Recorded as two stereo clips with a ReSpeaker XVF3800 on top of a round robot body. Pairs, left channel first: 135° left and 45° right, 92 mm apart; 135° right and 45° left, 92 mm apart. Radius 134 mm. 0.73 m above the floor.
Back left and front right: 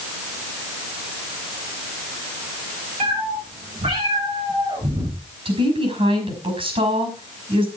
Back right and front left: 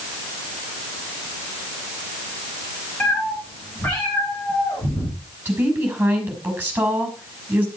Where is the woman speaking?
25° right, 5.5 m.